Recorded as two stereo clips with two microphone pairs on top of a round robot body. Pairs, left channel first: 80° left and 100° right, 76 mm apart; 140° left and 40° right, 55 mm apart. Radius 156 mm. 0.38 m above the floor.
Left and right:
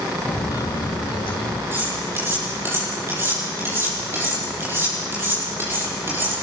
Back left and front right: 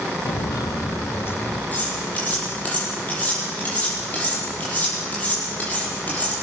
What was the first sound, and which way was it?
Footsteps, 145° left.